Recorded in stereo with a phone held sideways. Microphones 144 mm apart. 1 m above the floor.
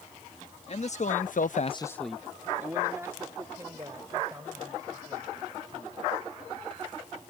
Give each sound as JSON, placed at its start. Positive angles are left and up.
{"t": 0.7, "sound": "a man speaking", "side_deg": 50}